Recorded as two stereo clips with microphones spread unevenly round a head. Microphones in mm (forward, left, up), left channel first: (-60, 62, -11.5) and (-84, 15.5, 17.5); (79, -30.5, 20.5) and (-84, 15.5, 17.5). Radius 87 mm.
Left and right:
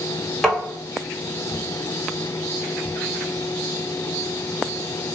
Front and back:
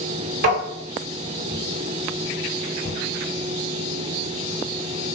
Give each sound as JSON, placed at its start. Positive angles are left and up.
{"t": 0.4, "sound": "tapping", "azimuth_deg": 140, "distance_m": 1.3}